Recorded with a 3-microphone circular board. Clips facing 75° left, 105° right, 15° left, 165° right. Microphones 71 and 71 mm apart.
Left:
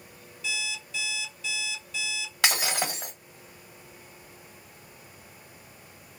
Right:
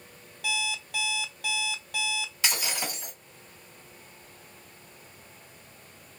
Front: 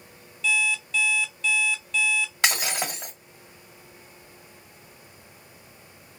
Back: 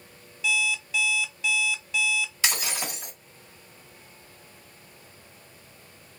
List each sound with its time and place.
0.4 s an alarm clock: 80° right, 0.6 m
2.4 s breaking glass: 55° left, 1.5 m